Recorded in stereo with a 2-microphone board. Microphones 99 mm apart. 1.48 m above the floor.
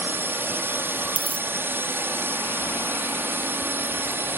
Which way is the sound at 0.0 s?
20° right (ahead or behind).